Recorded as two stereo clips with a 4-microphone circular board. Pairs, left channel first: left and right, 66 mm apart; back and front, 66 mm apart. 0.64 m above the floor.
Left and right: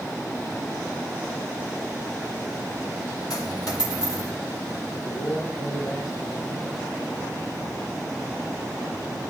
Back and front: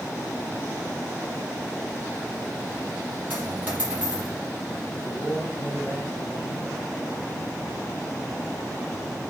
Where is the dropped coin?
65° left, 5 m.